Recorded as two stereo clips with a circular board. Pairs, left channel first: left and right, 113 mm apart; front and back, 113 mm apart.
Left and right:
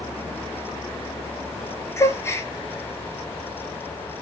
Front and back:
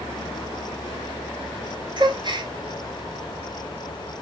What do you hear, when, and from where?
2.0 s a gasp: 150° left, 0.7 m